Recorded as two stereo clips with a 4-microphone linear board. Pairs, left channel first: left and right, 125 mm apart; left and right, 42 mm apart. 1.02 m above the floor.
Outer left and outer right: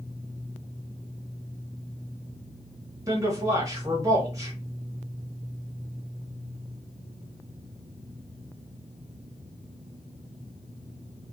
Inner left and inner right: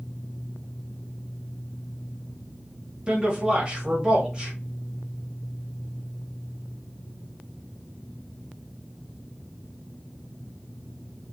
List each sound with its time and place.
3.1 s a man speaking: 25° right (ahead or behind), 1.7 m